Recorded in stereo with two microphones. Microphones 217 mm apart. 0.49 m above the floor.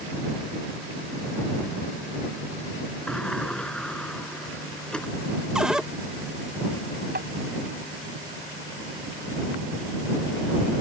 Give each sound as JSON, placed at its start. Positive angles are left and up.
{"t": 3.1, "sound": "a sliding door", "side_deg": 5}
{"t": 5.5, "sound": "a cupboard door", "side_deg": -5}
{"t": 7.2, "sound": "tapping", "side_deg": -50}